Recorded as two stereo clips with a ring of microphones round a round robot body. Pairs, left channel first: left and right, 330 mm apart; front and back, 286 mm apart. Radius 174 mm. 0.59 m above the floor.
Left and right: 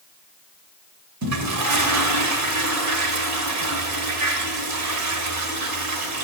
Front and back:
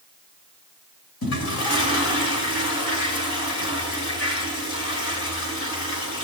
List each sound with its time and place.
1.2 s a toilet flushing: 50° right, 2.0 m